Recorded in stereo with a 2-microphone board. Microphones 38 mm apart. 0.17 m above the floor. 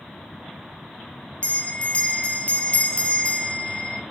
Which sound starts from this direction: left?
A bell, at 1.4 s.